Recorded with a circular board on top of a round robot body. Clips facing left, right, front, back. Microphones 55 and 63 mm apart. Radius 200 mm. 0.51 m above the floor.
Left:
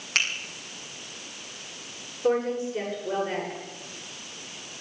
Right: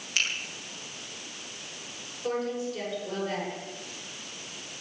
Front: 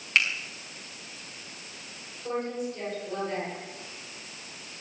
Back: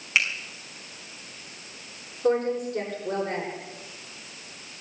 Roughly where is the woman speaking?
Behind left.